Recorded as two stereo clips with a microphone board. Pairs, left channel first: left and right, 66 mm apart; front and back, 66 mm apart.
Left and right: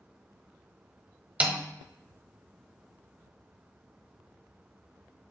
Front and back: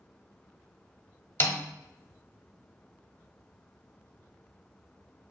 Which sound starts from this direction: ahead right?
A snare drum, at 1.4 s.